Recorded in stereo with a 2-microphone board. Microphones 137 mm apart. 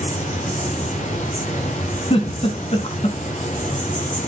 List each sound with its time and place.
0.0 s an insect: 70° left (ahead or behind), 4.5 m
2.1 s a giggle: 45° left (ahead or behind), 2.5 m